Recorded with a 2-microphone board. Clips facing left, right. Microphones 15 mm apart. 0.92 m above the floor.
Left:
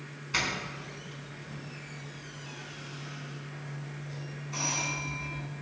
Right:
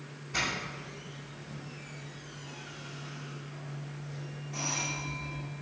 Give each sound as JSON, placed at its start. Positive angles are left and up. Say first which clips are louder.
{"t": 0.3, "sound": "a doorbell", "louder": "left 2 dB", "side_deg": 55, "distance_m": 4.0}